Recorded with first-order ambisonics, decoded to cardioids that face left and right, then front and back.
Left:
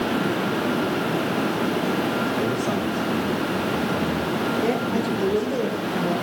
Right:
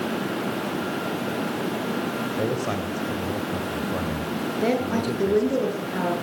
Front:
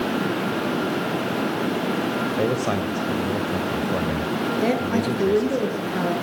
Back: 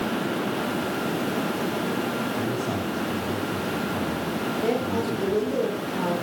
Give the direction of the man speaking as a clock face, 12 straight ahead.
12 o'clock.